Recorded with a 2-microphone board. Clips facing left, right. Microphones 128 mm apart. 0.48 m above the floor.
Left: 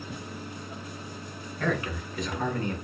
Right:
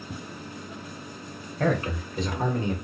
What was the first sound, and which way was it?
A man speaking, 40° right (ahead or behind).